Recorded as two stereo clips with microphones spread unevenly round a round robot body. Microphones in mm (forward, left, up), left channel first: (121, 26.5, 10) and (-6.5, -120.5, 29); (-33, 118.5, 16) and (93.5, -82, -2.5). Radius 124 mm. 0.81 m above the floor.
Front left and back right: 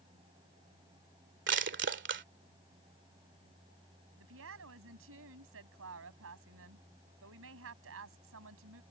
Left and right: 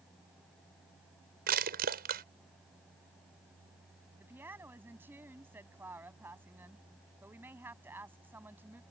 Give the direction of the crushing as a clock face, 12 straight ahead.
4 o'clock.